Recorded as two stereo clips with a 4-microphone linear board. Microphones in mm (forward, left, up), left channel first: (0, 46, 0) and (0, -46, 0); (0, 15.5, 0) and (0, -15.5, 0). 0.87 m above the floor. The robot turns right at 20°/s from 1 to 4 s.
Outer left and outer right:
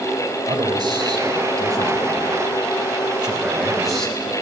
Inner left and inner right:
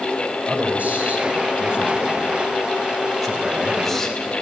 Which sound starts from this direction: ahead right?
A man speaking, at 0.5 s.